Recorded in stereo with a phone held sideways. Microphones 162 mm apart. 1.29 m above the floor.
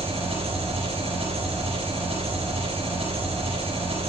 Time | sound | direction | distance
0.0 | an engine running | 40° right (ahead or behind) | 6.5 m